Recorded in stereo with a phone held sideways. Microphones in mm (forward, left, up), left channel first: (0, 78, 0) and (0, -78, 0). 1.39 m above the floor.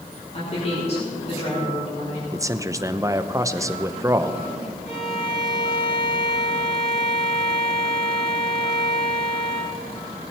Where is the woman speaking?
45° left (ahead or behind), 4 m.